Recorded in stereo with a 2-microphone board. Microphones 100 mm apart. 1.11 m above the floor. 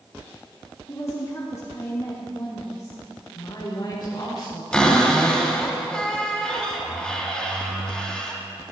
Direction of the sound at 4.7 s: 10° left (ahead or behind).